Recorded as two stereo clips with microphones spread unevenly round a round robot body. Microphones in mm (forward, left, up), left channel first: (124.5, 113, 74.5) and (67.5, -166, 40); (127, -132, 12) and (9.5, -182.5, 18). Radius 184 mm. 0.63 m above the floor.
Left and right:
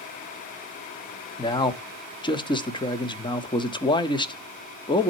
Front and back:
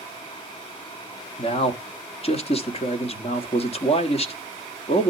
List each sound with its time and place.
1.4 s a man speaking: straight ahead, 1.2 m